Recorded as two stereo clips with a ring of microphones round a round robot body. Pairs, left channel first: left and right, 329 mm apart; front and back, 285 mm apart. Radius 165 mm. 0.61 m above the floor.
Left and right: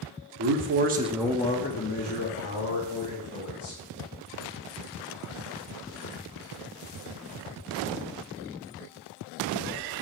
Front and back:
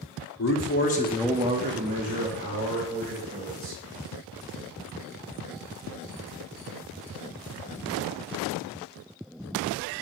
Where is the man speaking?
45° right, 1.4 m; by 3.8 s 135° left, 3.5 m.